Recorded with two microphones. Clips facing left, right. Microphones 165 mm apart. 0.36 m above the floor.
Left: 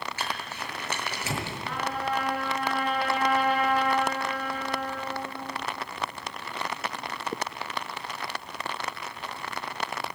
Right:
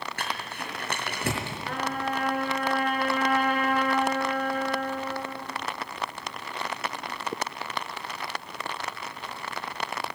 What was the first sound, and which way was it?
Crumpling, 60° right (ahead or behind).